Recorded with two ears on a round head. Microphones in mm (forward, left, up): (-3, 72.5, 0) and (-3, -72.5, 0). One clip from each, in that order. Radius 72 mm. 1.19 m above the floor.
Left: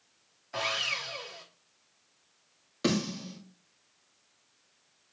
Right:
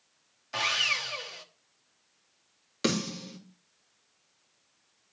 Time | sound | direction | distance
0.5 | sawing | 70° right (ahead or behind) | 1.1 m
2.8 | a snare drum | 50° right (ahead or behind) | 2.5 m